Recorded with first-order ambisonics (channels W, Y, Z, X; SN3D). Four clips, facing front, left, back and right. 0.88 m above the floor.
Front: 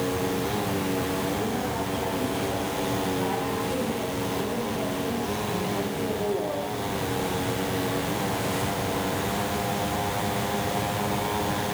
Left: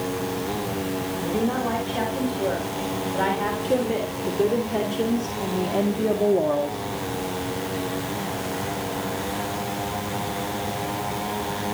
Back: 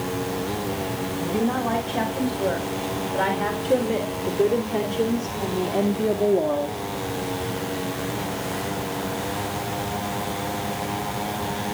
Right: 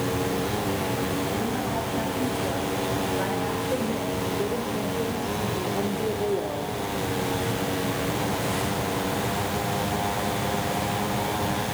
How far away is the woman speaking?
About 4.5 m.